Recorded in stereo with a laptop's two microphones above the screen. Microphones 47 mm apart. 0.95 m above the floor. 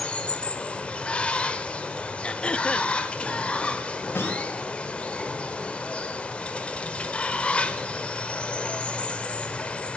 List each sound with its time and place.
0.0 s running water: 20° left (ahead or behind), 1.1 m
2.2 s throat clearing: 20° left (ahead or behind), 0.7 m
4.2 s a snare drum: 55° left (ahead or behind), 3.5 m